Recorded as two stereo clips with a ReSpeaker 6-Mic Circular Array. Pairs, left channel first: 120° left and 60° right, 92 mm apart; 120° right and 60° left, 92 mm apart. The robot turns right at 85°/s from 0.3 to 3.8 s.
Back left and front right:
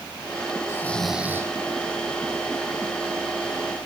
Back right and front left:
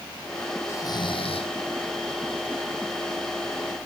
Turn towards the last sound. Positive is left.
turn(degrees=80)